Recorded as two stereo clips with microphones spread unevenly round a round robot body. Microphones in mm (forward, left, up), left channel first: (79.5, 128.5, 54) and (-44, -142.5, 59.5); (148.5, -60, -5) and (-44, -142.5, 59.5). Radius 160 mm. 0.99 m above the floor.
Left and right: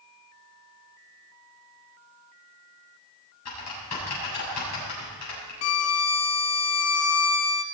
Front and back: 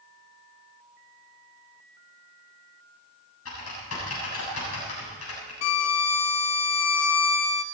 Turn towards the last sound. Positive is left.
turn(degrees=25)